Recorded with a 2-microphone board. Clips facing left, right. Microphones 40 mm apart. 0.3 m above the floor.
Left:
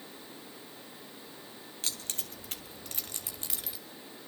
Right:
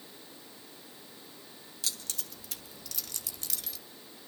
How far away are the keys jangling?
About 1.3 m.